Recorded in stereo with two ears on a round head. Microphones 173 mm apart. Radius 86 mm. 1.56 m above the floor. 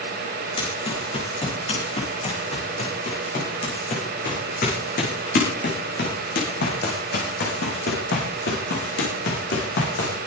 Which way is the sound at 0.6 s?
30° left (ahead or behind).